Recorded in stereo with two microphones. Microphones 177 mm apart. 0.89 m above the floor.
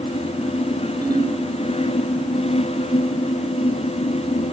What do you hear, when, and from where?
1.0 s a ringtone: 20° right (ahead or behind), 5.5 m